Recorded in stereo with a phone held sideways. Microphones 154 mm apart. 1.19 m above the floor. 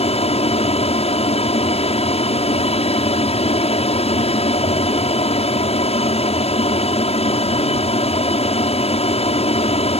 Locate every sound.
0.0 s an aircraft: 40° left (ahead or behind)